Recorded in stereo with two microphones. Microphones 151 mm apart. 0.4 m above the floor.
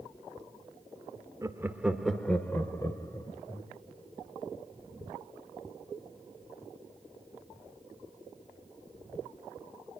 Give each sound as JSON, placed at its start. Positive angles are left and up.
{"t": 1.4, "sound": "laughter", "side_deg": -20, "distance_m": 0.9}